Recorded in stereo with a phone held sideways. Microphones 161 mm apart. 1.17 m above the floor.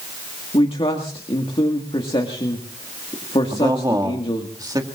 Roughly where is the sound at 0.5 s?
Left.